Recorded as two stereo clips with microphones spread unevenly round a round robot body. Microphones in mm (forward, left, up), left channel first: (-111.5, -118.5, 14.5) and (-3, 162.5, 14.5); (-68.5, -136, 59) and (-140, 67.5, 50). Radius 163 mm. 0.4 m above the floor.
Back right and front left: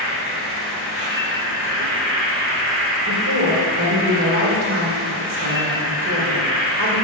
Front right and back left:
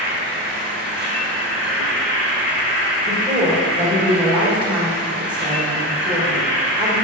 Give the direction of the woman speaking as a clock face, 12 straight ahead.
10 o'clock.